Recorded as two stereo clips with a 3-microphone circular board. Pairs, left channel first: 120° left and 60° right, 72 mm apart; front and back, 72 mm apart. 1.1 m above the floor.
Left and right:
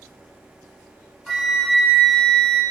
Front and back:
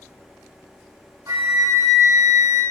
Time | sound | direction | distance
1.3 | a flute | 155° right | 1.8 m